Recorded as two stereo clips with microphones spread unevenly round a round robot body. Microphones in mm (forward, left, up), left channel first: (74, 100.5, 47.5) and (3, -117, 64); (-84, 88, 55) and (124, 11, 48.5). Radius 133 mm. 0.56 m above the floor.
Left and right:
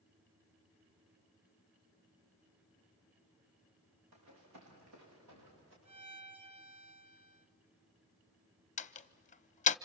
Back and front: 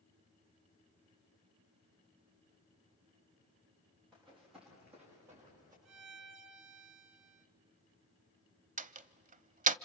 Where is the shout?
I don't hear a shout.